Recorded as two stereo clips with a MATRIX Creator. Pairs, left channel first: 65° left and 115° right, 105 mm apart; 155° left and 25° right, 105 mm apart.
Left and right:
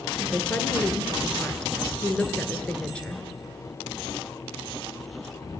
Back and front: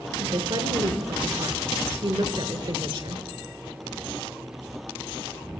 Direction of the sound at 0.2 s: 10° right.